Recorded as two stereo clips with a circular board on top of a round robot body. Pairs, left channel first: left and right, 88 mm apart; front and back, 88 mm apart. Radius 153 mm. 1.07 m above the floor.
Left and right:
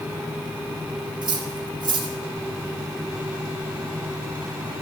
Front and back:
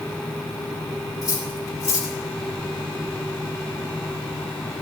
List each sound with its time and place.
1.2 s cutlery clinking: 55° right, 3 m